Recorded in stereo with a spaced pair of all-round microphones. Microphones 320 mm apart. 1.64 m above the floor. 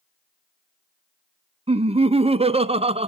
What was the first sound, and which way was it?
Laughter, 20° right (ahead or behind).